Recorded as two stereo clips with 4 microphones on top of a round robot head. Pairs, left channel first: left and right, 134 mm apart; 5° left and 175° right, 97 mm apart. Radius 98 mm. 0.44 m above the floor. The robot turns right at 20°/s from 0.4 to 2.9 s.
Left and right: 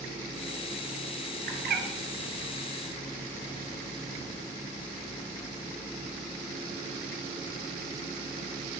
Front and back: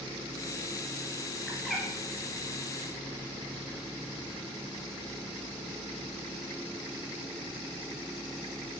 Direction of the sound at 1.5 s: 85° right.